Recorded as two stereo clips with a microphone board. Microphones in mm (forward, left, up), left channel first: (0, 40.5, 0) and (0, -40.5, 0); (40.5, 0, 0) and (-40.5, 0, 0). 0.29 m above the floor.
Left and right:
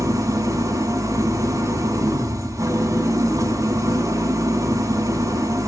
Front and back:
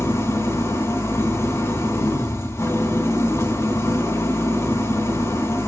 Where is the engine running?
50° right, 2.5 m.